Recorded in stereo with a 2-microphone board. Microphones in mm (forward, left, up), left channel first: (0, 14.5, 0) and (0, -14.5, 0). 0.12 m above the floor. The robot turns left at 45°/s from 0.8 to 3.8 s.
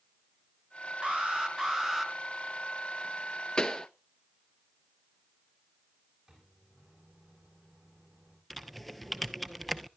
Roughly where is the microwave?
Centre.